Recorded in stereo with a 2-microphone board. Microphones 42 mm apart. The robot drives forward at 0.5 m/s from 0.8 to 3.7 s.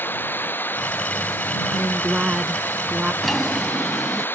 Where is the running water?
50° left (ahead or behind); by 4.4 s 55° left (ahead or behind).